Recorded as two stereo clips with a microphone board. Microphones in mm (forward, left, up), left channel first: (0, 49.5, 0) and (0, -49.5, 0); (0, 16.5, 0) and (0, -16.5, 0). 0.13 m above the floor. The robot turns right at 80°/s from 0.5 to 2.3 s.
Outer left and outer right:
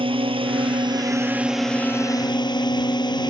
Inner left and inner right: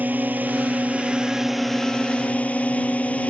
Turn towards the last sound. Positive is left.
turn(degrees=55)